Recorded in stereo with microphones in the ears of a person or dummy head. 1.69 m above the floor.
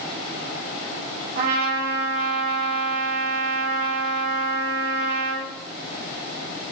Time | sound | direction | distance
1.4 | a trumpet | 60° right (ahead or behind) | 2.5 m